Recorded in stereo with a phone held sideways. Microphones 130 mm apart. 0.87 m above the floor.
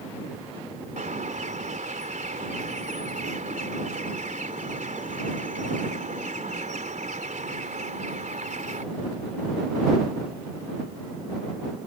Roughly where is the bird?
Right.